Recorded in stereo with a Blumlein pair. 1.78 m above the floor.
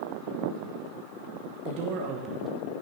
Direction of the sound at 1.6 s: 45° right.